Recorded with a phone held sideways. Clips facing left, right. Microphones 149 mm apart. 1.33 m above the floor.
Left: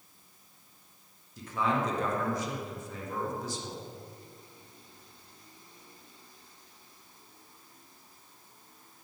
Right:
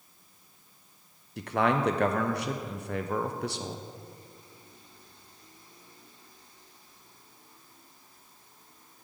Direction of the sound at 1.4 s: 70° right (ahead or behind).